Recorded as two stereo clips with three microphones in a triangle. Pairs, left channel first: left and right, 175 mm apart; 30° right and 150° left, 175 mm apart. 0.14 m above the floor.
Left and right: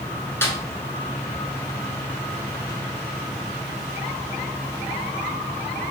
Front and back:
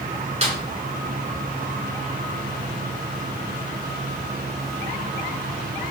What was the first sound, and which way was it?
A snare drum, 160° left.